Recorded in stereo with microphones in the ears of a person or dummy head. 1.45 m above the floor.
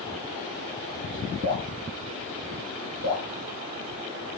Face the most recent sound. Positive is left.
turn(degrees=-35)  # may be behind; listen again after turning